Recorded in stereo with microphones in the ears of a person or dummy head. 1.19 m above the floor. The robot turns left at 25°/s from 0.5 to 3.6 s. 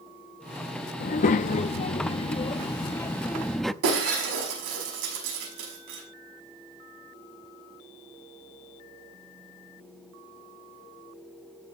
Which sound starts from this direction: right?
Breaking glass, at 3.8 s.